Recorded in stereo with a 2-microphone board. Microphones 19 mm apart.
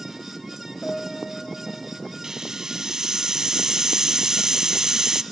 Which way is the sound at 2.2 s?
35° right (ahead or behind).